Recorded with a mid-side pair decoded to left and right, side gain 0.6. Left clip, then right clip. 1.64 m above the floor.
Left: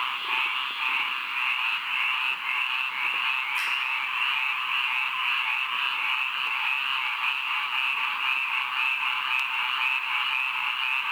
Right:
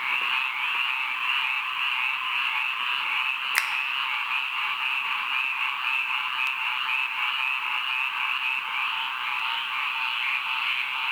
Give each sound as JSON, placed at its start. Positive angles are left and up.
{"t": 3.5, "sound": "a finger snap", "azimuth_deg": -70, "distance_m": 0.7}